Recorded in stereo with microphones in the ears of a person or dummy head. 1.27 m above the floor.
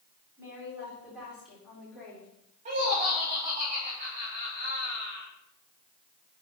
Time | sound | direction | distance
0.4 | a woman speaking | 10° right (ahead or behind) | 4.5 m
2.6 | laughter | 35° right (ahead or behind) | 1.5 m